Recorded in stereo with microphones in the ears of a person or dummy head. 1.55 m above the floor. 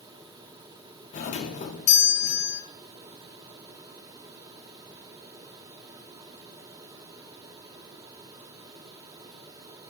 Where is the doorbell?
45° left (ahead or behind), 0.8 m.